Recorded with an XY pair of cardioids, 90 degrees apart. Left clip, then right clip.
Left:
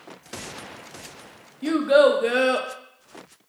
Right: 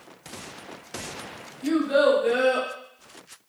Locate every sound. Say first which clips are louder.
1.6 s a child speaking: left 4 dB; 70° left, 0.6 m